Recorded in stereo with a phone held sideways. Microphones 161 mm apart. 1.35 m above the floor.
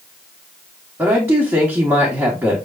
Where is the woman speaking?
15° right (ahead or behind), 1.0 m.